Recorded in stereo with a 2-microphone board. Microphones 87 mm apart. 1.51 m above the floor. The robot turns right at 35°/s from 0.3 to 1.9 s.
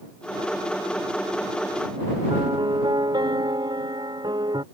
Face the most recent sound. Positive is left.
turn(degrees=-60)  # may be behind; listen again after turning